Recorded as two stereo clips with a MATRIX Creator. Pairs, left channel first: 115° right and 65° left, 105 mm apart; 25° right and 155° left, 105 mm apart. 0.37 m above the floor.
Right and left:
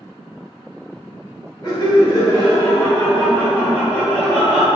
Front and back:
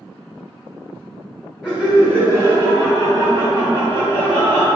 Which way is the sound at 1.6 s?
125° right.